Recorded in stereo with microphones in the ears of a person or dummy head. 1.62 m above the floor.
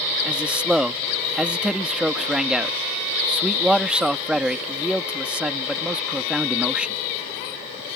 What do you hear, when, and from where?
0.2 s a man speaking: 10° right (ahead or behind)